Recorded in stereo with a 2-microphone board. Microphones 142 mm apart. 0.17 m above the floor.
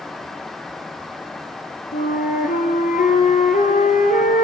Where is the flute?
85° left, 5.5 m.